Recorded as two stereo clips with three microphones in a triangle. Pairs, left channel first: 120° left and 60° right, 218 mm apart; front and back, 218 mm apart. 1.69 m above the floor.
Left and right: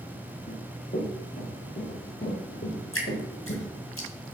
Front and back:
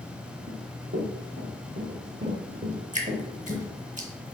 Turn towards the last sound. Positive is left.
turn(degrees=125)